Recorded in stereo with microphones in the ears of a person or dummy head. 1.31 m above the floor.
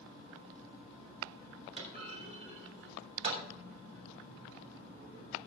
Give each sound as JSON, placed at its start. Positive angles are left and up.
{"t": 1.8, "sound": "a clunk", "side_deg": -40, "distance_m": 3.5}